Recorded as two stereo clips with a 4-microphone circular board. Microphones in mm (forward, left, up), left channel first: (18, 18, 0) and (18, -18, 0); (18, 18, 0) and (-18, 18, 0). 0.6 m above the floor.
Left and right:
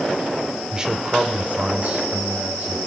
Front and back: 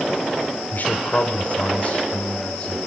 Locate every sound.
0.7 s a man speaking: 20° right, 1.9 m; by 2.8 s 60° right, 4 m